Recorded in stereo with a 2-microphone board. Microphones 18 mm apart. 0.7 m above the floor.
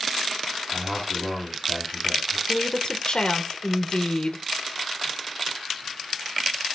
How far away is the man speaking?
About 6.5 m.